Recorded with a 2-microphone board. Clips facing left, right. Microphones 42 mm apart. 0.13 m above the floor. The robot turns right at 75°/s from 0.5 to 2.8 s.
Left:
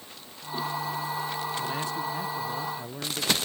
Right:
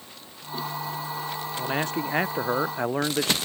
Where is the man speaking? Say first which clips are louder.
Right 3 dB; 150° right; by 3.3 s 60° right.